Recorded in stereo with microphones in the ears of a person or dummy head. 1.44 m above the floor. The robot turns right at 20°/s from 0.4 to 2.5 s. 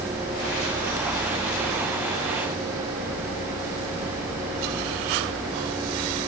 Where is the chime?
No chime in this recording.